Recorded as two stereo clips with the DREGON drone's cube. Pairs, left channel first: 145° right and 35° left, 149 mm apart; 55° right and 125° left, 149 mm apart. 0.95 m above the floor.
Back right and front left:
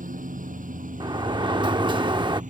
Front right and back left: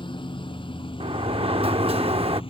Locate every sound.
0.0 s a lawn mower: 5° left; by 2.5 s straight ahead
1.0 s a sliding door: 85° left